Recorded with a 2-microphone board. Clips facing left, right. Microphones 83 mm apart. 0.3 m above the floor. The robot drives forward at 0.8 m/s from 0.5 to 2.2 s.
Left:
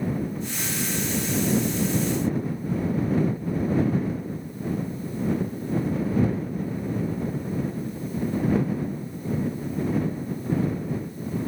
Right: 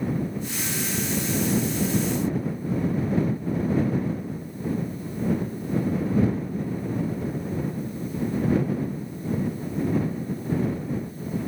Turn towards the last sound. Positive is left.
No sound to turn to.